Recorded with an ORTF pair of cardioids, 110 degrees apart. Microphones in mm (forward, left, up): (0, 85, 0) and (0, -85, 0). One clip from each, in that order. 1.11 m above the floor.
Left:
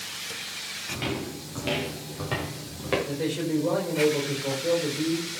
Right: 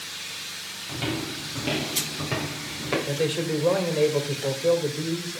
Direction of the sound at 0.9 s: Straight ahead.